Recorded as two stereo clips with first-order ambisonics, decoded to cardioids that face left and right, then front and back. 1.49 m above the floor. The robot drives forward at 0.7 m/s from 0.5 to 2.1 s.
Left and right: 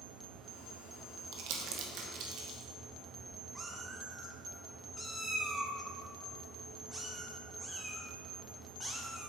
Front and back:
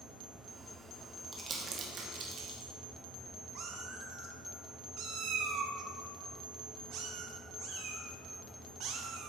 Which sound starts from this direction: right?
Crumpling, at 1.3 s.